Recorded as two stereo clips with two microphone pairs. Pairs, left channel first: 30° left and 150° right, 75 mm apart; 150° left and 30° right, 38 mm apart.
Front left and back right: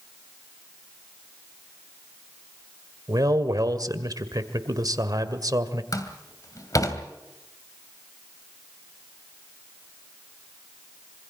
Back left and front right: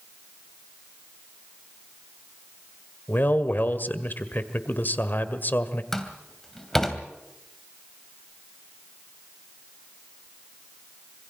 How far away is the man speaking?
About 1.8 m.